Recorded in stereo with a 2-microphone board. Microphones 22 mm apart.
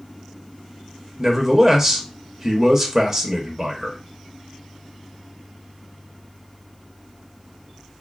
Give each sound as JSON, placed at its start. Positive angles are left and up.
{"t": 1.2, "sound": "a man speaking", "side_deg": -15, "distance_m": 0.8}